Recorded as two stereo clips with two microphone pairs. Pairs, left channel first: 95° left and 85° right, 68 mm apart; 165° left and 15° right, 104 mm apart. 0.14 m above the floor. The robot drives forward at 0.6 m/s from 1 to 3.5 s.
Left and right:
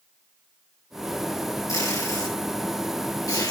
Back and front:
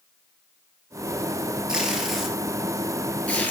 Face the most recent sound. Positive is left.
turn(degrees=95)